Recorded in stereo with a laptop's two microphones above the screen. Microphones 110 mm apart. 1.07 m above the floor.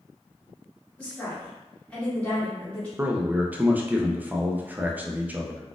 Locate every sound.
1.0 s a woman speaking: 15° left (ahead or behind), 1.6 m
3.0 s a man speaking: 15° right (ahead or behind), 0.5 m